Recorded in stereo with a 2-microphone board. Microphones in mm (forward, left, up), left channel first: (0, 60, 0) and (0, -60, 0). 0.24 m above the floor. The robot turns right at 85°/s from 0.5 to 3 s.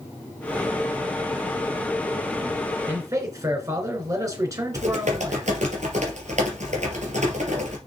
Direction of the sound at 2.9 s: 15° right (ahead or behind).